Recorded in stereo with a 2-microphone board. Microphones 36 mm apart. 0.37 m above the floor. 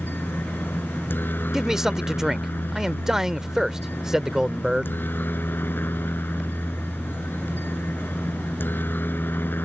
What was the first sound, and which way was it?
A helicopter, 75° left (ahead or behind).